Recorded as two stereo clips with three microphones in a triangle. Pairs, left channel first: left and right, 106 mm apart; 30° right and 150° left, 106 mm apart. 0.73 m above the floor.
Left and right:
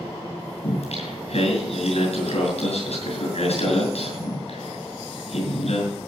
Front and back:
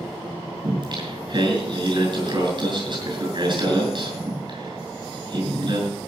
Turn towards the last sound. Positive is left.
turn(degrees=105)